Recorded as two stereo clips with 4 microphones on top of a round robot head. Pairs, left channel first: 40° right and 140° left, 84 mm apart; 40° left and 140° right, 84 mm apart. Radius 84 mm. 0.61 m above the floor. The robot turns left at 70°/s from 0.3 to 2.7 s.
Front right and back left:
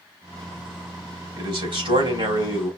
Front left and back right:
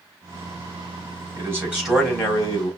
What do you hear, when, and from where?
1.4 s a man speaking: 170° left, 3.5 m; by 2.7 s 75° left, 3.5 m